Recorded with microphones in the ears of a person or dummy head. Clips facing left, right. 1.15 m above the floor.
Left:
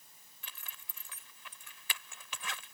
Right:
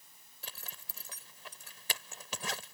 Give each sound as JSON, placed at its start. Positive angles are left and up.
{"t": 0.4, "sound": "a zipper", "side_deg": -30}